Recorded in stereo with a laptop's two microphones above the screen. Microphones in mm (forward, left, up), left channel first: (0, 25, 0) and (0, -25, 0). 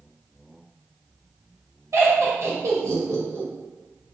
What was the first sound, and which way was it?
Laughter, 75° right (ahead or behind).